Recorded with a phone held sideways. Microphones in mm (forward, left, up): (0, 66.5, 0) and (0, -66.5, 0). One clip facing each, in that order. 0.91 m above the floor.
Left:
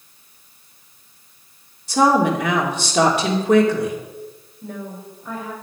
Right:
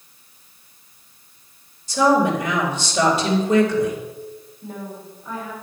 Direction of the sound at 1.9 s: 65° left (ahead or behind).